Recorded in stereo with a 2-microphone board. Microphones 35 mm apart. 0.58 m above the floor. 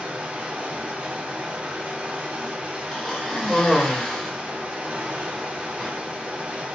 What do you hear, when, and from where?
0.0 s running water: 40° right (ahead or behind), 0.9 m
2.9 s a cough: 10° left (ahead or behind), 1.6 m